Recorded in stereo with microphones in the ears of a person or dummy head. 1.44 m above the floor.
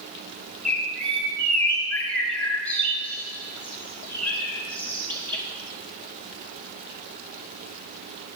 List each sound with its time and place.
0.7 s a bird: 10° left (ahead or behind), 1.5 m